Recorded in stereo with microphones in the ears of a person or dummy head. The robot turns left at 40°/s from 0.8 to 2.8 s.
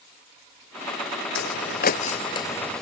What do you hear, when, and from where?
1.4 s footsteps: 70° left (ahead or behind); by 2.8 s 5° left (ahead or behind)